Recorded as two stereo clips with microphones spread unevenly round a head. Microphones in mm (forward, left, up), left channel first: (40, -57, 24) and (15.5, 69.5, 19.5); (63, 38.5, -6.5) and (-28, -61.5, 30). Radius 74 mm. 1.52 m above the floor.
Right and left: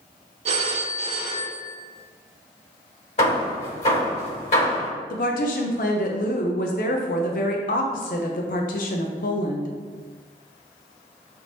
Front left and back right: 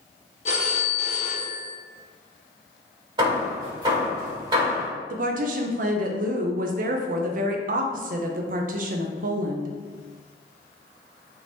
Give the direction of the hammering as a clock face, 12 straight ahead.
4 o'clock.